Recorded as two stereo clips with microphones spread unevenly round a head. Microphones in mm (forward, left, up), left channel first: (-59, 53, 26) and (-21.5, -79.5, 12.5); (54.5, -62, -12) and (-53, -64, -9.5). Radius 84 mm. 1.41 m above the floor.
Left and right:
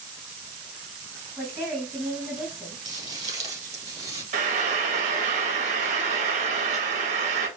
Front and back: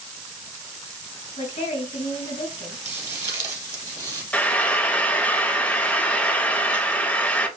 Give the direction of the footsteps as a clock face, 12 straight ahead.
4 o'clock.